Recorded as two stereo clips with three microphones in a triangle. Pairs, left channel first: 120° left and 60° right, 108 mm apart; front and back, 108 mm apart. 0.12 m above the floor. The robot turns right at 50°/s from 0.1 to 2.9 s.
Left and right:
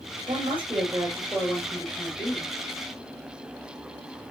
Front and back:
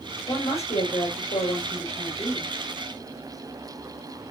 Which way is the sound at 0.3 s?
35° right.